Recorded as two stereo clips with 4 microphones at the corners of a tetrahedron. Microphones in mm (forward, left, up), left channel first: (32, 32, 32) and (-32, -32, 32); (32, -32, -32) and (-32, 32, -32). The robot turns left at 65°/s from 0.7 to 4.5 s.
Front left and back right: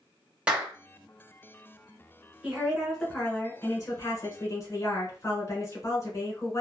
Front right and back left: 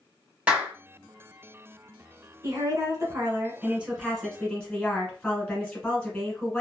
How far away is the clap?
About 1.0 m.